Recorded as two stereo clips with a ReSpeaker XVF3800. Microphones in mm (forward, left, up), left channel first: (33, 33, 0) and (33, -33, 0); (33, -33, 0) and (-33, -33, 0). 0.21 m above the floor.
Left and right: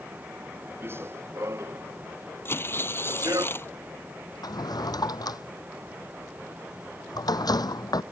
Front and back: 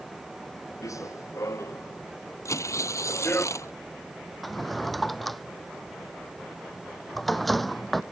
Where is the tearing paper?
35° left.